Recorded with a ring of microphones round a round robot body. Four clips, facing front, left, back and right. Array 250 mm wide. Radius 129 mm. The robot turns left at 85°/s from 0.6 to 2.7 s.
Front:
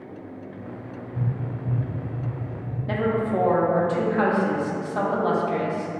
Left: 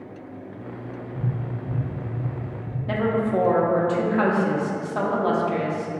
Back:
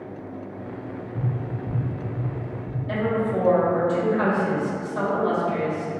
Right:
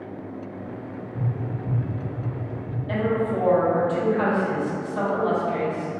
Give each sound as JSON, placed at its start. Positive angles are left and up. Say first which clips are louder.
{"t": 1.1, "sound": "tapping", "louder": "right 1 dB, even", "azimuth_deg": -135, "distance_m": 1.4}
{"t": 2.9, "sound": "a woman speaking", "louder": "left 1 dB, even", "azimuth_deg": 55, "distance_m": 0.7}